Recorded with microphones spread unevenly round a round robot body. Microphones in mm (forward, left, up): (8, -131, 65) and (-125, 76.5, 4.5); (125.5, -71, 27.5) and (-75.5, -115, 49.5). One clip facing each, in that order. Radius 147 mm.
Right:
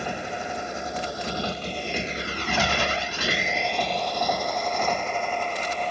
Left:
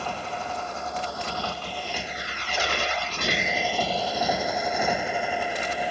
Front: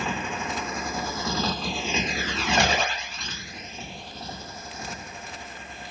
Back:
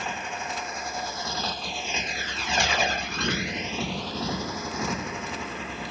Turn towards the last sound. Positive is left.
turn(degrees=-155)